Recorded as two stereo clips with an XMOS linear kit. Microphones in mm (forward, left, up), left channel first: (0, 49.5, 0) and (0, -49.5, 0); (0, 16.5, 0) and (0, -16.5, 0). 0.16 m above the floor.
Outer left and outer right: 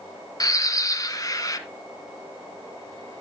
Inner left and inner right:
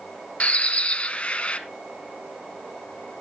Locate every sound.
0.4 s a bird: 35° left (ahead or behind), 1.1 m